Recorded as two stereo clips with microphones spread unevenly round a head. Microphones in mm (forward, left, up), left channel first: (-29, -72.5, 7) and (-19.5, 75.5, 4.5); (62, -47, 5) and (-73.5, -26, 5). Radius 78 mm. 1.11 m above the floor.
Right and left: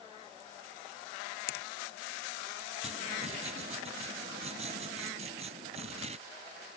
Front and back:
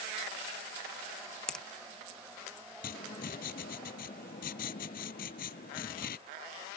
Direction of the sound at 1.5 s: 95° right.